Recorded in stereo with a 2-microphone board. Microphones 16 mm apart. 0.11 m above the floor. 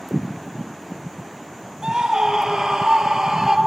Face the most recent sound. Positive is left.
turn(degrees=-40)  # may be behind; listen again after turning